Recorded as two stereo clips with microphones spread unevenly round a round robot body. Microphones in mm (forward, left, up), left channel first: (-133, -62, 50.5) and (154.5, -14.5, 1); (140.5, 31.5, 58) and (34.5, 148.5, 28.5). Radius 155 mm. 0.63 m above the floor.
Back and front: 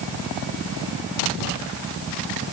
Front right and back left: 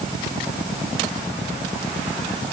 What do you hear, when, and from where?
Only background noise.